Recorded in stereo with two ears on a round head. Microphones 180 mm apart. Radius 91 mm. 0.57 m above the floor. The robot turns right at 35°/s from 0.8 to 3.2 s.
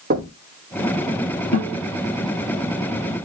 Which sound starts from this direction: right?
Knocking, at 0.1 s.